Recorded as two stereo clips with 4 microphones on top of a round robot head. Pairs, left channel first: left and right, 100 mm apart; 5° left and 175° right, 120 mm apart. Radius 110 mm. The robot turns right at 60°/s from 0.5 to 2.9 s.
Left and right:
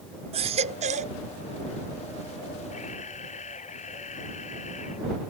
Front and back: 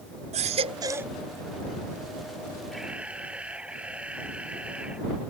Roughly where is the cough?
I don't hear a cough.